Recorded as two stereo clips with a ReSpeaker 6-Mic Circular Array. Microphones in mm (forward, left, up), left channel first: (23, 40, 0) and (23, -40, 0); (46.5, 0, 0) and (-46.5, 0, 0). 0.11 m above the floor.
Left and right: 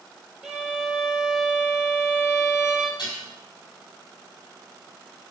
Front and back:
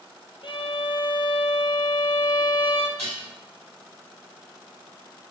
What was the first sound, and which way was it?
A violin, 5° right.